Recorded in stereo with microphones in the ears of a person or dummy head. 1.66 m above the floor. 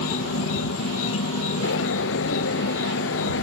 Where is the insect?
70° left (ahead or behind).